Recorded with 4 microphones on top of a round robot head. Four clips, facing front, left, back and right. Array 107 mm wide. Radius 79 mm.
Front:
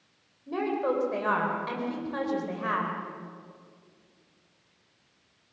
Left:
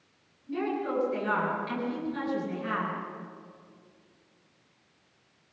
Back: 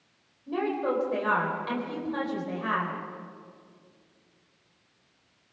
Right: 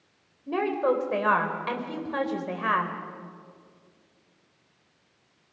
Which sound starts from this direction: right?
A woman speaking, at 0.5 s.